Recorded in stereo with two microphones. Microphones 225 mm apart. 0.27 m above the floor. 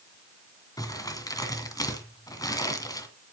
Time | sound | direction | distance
0.8 | crumpling | 15° left (ahead or behind) | 2 m